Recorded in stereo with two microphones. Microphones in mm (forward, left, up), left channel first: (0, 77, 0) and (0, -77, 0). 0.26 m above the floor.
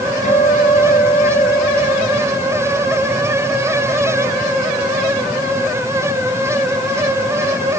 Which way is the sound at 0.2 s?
50° left (ahead or behind).